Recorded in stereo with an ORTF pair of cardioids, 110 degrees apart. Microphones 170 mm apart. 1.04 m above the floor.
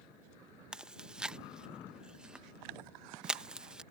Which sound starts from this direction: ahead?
Chewing, at 0.7 s.